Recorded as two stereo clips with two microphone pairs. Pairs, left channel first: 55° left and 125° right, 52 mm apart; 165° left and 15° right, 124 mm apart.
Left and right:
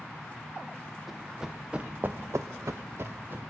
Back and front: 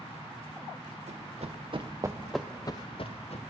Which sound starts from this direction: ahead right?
Running footsteps, at 1.1 s.